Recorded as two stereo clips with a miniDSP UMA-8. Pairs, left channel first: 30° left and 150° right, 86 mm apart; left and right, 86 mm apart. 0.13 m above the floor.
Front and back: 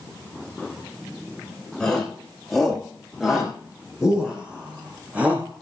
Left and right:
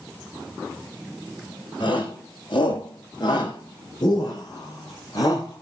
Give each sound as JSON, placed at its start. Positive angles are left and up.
{"t": 1.8, "sound": "a shout", "azimuth_deg": 115, "distance_m": 7.0}